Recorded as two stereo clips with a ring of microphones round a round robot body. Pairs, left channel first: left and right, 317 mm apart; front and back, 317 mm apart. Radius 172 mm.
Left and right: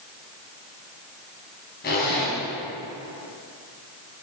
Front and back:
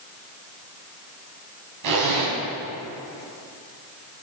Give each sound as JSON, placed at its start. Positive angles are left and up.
{"t": 1.8, "sound": "a zipper", "azimuth_deg": 155, "distance_m": 2.5}